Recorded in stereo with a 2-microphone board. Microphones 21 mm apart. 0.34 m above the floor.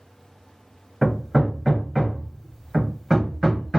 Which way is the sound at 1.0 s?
5° left (ahead or behind).